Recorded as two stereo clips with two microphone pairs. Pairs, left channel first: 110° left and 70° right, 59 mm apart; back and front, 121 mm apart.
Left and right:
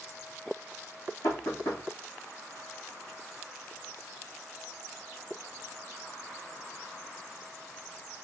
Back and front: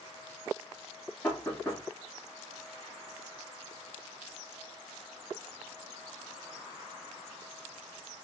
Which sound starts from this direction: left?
Knocking, at 1.2 s.